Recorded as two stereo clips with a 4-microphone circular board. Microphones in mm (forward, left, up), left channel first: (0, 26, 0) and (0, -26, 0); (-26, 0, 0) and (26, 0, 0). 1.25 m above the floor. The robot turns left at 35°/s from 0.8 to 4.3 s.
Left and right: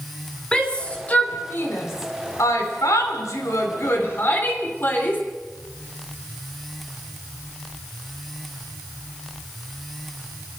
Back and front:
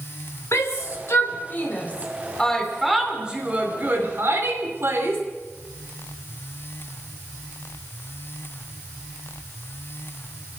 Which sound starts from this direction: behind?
A shout, at 0.5 s.